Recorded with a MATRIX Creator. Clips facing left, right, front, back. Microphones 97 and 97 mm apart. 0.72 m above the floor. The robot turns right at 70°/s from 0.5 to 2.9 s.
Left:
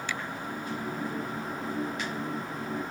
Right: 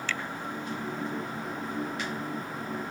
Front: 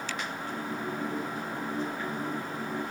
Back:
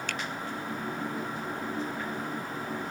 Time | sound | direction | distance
0.1 | a finger snap | 165° left | ?